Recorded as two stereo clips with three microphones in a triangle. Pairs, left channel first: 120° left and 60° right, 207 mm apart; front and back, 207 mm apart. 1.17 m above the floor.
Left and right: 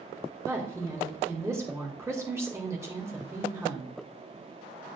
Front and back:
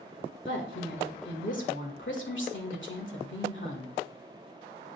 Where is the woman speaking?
15° left, 1.8 m.